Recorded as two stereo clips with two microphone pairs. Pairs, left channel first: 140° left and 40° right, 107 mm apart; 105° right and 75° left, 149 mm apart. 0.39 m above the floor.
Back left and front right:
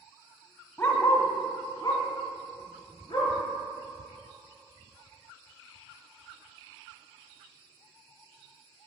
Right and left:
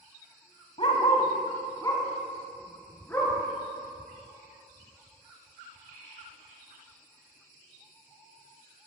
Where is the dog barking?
150° right, 1.0 m; by 3.4 s straight behind, 2.5 m.